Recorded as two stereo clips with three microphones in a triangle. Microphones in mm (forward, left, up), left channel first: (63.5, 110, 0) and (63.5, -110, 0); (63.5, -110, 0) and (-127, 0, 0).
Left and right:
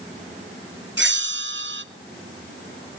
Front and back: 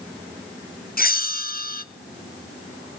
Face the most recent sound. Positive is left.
turn(degrees=-70)